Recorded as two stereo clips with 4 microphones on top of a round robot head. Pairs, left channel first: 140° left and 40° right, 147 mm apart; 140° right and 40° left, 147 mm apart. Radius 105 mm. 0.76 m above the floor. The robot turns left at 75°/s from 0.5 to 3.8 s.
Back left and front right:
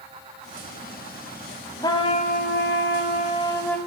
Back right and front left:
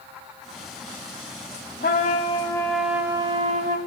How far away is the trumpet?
About 0.8 m.